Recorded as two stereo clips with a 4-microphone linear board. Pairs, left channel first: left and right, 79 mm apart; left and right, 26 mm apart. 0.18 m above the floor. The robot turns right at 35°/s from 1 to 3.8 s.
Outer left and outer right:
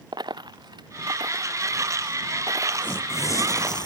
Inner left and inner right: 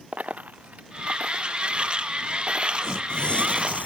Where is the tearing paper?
25° left; by 3.9 s 60° left.